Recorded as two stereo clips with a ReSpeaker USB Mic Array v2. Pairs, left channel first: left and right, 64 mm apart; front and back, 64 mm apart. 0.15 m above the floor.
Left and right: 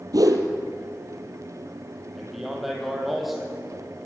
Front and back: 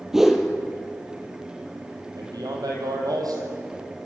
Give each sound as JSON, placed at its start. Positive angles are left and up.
{"t": 0.1, "sound": "a whoosh", "azimuth_deg": -95, "distance_m": 1.7}
{"t": 2.1, "sound": "a man speaking", "azimuth_deg": 180, "distance_m": 5.0}